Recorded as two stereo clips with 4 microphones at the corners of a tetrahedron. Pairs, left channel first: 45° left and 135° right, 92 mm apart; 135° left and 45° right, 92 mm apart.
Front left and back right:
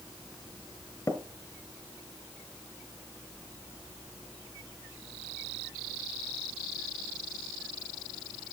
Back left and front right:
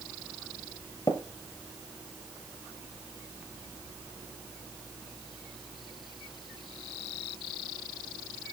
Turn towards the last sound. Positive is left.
turn(degrees=95)